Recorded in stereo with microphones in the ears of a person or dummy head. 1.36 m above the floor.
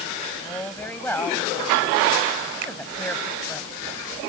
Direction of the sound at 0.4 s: 15° left (ahead or behind).